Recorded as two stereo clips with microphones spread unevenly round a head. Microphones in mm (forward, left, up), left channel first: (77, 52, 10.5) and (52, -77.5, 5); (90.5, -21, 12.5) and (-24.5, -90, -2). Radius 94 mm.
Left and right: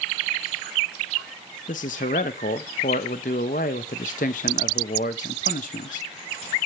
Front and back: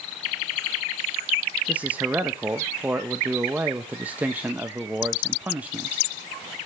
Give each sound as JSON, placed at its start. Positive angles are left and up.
{"t": 1.7, "sound": "a man speaking", "azimuth_deg": 130, "distance_m": 0.9}